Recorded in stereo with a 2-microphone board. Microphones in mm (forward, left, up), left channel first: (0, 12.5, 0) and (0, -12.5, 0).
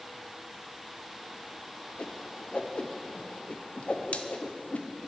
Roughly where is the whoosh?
Left.